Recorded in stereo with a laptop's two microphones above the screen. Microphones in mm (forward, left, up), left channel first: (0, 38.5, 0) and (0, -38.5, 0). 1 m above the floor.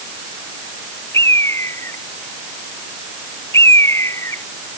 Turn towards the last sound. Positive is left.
turn(degrees=35)  # may be behind; listen again after turning